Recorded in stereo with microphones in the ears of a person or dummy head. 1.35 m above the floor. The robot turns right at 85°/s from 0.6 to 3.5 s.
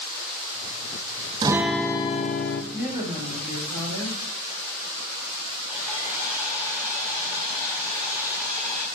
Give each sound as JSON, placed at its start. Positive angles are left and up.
{"t": 1.4, "sound": "a guitar", "azimuth_deg": -20, "distance_m": 0.6}
{"t": 2.7, "sound": "a woman speaking", "azimuth_deg": -175, "distance_m": 2.5}
{"t": 5.7, "sound": "sawing", "side_deg": -10, "distance_m": 4.5}